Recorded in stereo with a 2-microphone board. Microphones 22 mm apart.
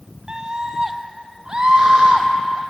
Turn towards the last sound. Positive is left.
turn(degrees=-40)  # may be behind; listen again after turning